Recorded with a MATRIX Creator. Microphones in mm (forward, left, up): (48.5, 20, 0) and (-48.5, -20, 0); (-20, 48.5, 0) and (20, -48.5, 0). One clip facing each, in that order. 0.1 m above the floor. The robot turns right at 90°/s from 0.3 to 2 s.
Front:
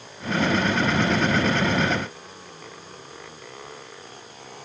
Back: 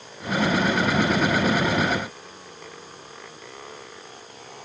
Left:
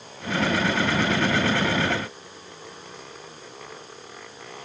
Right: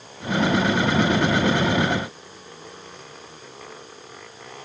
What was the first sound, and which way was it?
Only background noise.